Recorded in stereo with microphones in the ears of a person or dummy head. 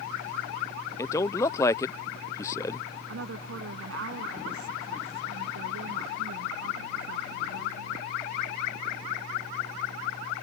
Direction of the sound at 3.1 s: 80° right.